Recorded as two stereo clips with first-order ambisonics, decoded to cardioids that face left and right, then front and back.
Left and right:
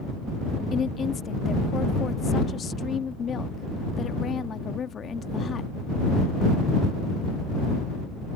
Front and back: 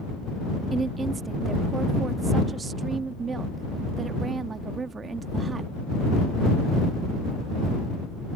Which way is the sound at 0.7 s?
130° left.